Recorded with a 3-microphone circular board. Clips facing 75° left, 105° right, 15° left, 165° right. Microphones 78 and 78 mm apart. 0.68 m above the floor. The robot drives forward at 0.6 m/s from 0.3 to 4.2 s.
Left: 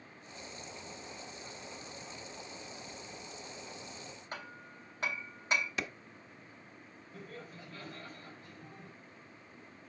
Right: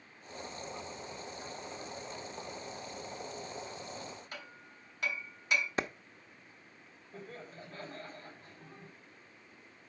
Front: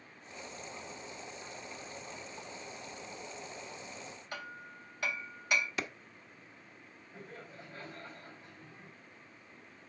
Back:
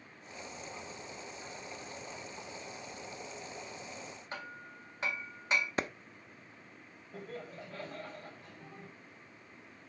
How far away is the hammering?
About 1.7 m.